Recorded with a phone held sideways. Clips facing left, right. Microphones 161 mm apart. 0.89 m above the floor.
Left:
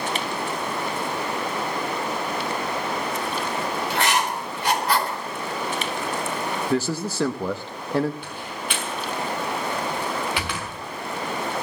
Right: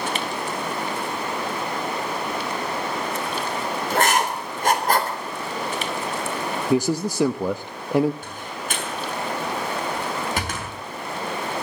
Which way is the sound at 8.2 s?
45° right (ahead or behind).